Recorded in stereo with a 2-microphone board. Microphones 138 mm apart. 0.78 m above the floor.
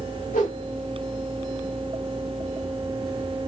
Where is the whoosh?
65° left (ahead or behind), 1.4 m.